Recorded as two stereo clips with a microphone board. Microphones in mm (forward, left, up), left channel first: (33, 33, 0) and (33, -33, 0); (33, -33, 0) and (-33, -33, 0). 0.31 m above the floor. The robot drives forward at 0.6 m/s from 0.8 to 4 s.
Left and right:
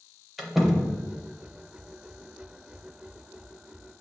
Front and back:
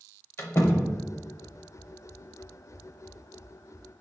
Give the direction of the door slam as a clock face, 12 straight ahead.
12 o'clock.